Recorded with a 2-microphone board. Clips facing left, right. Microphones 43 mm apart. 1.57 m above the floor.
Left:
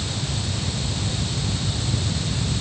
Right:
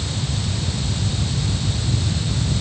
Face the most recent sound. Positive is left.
No sound to turn to.